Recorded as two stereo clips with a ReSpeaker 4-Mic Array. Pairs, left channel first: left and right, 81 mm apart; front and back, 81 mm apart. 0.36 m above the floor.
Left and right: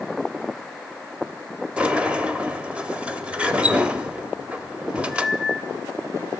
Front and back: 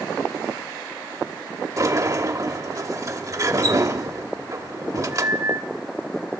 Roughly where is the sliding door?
Behind.